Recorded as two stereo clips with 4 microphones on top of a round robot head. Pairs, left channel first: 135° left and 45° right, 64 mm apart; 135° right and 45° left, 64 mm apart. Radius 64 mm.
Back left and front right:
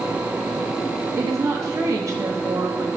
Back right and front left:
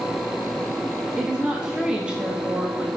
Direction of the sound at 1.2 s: 30° right.